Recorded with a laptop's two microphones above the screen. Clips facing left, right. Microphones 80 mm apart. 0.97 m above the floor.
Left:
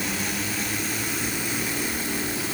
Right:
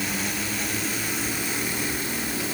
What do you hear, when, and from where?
Only background noise.